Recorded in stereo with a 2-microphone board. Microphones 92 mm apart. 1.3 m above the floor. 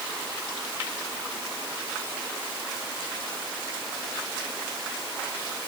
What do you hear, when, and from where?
Only background noise.